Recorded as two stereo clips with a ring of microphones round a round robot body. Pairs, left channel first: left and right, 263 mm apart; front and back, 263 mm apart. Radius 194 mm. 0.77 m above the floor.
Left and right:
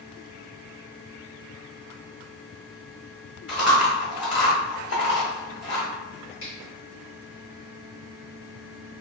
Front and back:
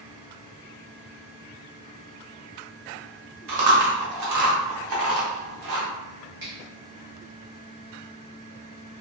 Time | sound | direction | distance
3.5 | chewing | 150° left | 0.6 m
6.4 | a finger snap | 135° left | 1.3 m